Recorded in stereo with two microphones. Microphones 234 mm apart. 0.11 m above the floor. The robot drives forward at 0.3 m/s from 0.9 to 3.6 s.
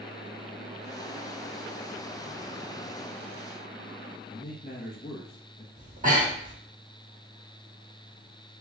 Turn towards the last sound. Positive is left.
turn(degrees=-35)  # may be behind; listen again after turning